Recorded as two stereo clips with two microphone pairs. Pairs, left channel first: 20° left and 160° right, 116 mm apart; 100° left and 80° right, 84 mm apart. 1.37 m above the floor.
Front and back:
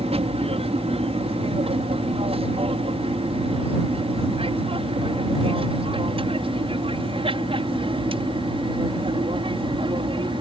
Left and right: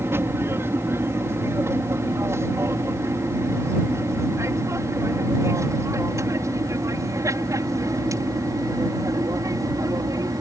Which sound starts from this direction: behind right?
An aircraft, at 0.0 s.